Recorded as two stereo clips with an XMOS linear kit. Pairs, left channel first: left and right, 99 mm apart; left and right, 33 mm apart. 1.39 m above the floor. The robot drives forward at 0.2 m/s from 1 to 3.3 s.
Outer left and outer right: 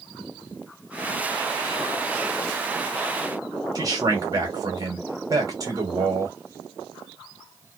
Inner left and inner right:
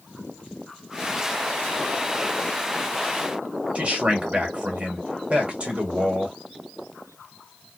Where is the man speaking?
35° right (ahead or behind), 1.2 m.